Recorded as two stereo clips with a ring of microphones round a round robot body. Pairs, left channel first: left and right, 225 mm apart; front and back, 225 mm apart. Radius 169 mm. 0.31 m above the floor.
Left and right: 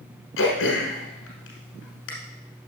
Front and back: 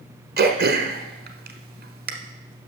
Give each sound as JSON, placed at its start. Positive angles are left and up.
{"t": 0.4, "sound": "throat clearing", "azimuth_deg": 135, "distance_m": 1.1}